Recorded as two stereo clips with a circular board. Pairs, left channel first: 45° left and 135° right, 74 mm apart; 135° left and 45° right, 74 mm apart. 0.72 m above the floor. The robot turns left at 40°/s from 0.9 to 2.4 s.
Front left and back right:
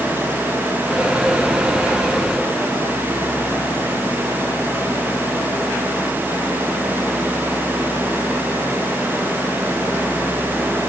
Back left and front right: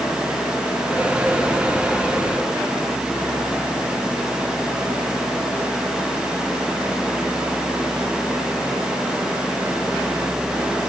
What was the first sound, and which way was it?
Only background noise.